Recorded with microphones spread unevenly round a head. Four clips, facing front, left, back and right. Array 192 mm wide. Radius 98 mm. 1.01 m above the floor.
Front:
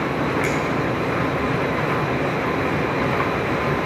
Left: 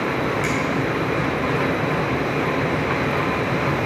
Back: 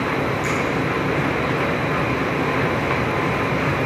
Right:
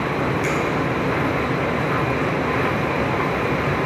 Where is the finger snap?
Straight ahead, 3 m.